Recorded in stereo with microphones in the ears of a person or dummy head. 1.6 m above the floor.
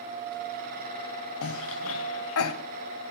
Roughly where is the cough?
Left.